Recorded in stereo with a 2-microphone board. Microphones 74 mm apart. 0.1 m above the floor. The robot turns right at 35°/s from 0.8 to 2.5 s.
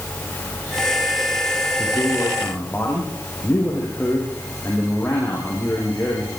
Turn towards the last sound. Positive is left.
turn(degrees=20)  # may be behind; listen again after turning